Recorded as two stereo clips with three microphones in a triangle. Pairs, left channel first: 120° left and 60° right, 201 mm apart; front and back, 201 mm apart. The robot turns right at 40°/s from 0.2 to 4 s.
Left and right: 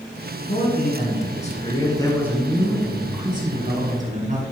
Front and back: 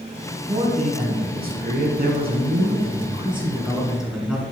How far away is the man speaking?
About 2.5 m.